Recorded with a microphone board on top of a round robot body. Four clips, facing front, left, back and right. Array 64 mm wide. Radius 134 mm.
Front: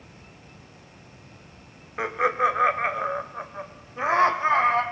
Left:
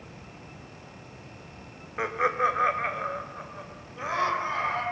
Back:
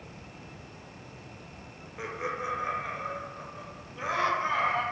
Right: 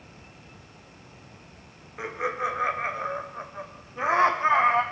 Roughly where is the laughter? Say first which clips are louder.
Left 4 dB, front 11 dB; ahead left.